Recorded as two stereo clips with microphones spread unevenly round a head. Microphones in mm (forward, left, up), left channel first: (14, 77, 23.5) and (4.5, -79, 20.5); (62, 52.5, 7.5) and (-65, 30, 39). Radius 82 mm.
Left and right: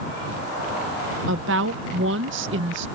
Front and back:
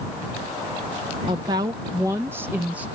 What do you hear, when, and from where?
1.3 s a woman speaking: 105° right; by 2.9 s 90° right